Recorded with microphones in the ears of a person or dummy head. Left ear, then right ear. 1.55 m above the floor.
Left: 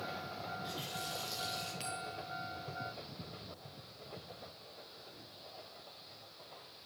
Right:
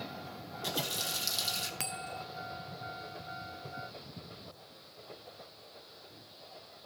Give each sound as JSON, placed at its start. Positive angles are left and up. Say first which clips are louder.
{"t": 0.5, "sound": "a running tap", "louder": "right 9 dB", "side_deg": -80, "distance_m": 2.5}
{"t": 1.8, "sound": "a bell", "louder": "right 3 dB", "side_deg": -45, "distance_m": 0.7}